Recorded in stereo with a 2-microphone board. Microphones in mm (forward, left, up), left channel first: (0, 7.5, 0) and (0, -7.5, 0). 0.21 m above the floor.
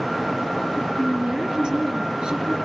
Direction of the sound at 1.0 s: 60° right (ahead or behind).